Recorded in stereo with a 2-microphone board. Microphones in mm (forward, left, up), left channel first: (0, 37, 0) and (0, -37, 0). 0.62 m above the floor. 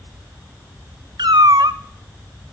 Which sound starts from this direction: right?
A cat meowing, at 1.2 s.